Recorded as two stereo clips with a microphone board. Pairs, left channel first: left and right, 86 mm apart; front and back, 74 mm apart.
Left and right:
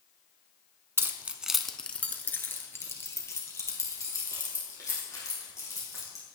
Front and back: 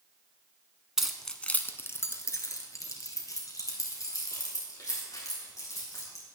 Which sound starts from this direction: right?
Keys jangling, at 1.0 s.